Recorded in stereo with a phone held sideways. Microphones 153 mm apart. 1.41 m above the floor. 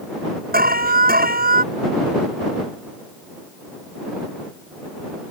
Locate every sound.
0.5 s an alarm: 80° right